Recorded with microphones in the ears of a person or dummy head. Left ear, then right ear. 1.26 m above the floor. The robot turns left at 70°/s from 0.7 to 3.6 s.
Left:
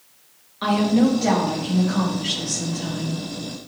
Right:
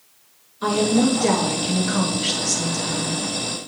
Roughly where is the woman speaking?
Ahead left.